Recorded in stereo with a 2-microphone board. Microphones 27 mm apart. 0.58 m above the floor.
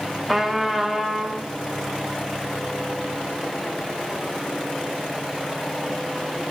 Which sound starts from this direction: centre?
A trumpet, at 0.3 s.